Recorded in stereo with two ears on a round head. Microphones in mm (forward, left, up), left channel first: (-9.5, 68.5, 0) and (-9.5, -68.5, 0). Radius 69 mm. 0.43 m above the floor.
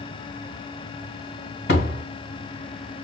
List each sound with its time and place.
1.7 s a door slam: 80° left, 2 m